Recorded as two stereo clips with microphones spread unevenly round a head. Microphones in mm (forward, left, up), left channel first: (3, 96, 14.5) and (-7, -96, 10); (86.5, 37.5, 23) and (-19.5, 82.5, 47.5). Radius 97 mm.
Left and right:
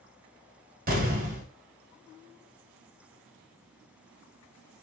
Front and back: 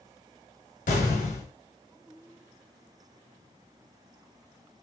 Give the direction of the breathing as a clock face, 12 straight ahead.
No breathing in this recording.